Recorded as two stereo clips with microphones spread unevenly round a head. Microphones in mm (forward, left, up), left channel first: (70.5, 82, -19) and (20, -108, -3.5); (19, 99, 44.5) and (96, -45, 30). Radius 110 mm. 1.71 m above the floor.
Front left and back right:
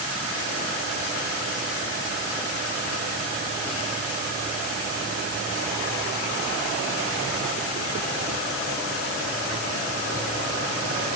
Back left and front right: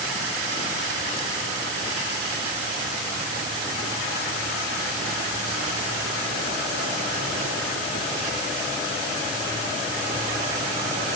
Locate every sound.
Only background noise.